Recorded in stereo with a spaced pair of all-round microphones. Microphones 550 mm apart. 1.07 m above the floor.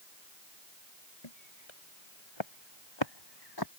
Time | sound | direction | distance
1.2 | footsteps | 60° left (ahead or behind) | ?